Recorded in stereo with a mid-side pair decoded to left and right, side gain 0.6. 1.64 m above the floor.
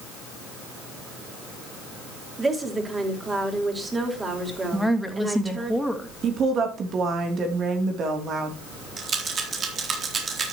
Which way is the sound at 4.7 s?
Straight ahead.